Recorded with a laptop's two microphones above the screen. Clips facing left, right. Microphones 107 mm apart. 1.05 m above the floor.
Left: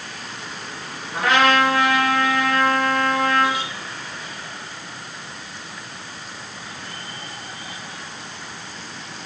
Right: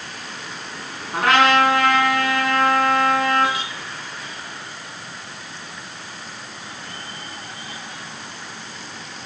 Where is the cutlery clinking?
No cutlery clinking in this recording.